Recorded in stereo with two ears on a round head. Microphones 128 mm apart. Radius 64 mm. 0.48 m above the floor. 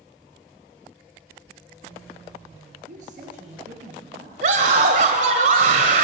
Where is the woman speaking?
55° right (ahead or behind), 8 m.